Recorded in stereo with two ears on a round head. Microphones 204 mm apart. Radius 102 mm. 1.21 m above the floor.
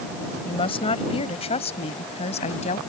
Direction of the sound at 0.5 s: 25° left (ahead or behind).